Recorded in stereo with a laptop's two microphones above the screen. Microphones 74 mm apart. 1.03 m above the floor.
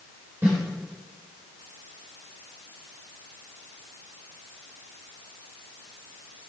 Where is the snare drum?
30° right (ahead or behind), 4 m.